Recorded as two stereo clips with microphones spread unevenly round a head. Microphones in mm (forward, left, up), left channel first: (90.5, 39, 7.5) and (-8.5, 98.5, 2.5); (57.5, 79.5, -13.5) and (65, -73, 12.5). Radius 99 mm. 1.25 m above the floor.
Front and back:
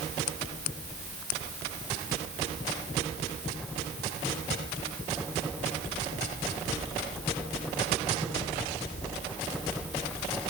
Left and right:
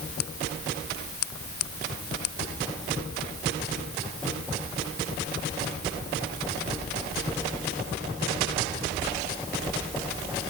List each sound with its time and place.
Only background noise.